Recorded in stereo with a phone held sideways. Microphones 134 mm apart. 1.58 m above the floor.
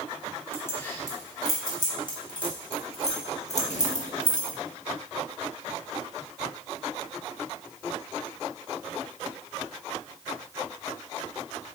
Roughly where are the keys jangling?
Centre.